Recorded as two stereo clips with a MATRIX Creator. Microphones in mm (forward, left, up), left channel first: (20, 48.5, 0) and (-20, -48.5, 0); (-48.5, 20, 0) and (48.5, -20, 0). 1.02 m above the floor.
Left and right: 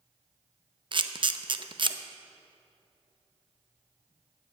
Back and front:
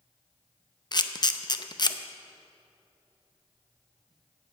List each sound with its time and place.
0.9 s a camera shutter: 155° right, 0.6 m